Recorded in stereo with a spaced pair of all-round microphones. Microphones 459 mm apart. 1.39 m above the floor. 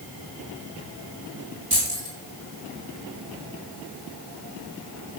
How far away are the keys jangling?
About 4 m.